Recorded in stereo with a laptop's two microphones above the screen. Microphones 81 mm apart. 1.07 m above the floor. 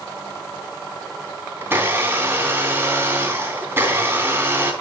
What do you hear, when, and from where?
1.6 s a blender: 25° right (ahead or behind), 3 m